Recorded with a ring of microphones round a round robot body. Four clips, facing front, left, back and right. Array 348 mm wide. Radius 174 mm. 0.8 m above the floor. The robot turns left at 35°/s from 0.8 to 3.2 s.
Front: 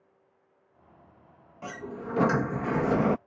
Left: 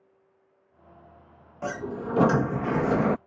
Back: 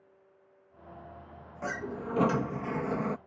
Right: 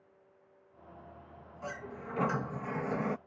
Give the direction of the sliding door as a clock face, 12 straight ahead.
9 o'clock.